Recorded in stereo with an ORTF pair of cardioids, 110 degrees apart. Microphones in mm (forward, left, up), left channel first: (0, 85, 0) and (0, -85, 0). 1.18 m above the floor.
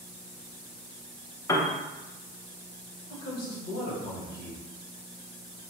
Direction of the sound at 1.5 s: 20° left.